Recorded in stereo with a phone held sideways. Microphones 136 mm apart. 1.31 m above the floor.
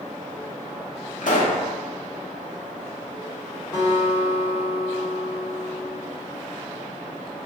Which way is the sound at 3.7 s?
30° left (ahead or behind).